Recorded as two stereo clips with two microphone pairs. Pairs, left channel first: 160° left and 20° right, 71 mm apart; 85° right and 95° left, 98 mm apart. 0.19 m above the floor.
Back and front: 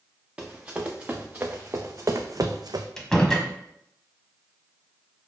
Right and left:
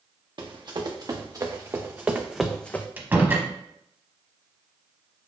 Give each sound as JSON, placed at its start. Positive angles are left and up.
{"t": 0.4, "sound": "running footsteps", "azimuth_deg": 60, "distance_m": 1.5}
{"t": 3.0, "sound": "a door slam", "azimuth_deg": 95, "distance_m": 0.8}